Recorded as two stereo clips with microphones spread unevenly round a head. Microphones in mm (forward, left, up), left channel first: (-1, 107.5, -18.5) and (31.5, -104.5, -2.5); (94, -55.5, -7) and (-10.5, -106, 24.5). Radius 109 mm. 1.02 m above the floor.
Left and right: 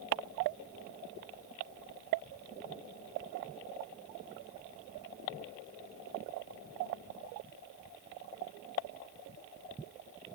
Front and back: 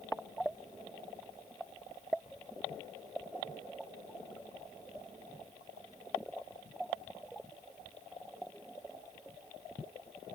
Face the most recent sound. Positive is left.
No sound to turn to.